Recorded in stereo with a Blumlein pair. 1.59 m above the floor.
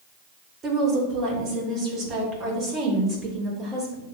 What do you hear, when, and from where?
0.6 s a woman speaking: 25° right, 1.5 m